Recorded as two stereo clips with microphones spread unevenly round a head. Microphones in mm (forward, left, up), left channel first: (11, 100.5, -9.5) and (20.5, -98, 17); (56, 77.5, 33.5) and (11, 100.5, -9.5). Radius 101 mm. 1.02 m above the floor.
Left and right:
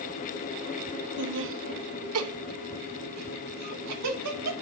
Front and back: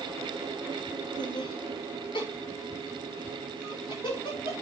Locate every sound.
1.2 s laughter: 50° right, 1.0 m; by 4.5 s 85° right, 2.5 m